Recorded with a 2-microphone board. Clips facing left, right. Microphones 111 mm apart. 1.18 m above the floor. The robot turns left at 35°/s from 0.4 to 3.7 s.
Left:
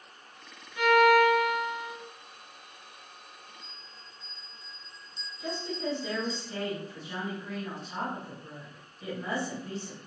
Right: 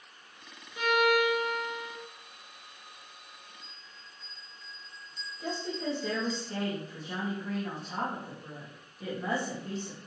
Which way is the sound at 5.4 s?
45° right (ahead or behind).